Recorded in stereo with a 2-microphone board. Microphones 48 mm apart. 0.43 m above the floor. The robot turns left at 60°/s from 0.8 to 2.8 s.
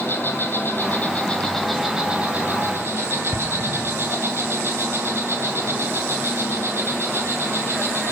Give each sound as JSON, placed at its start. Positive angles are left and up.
{"t": 0.0, "sound": "an insect", "azimuth_deg": 55, "distance_m": 2.0}
{"t": 3.3, "sound": "an explosion", "side_deg": -70, "distance_m": 1.1}